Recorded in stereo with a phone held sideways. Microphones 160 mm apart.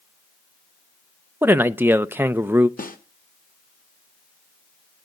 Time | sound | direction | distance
1.4 | a man speaking | 15° right (ahead or behind) | 0.5 m
2.8 | a snare drum | 60° left (ahead or behind) | 1.2 m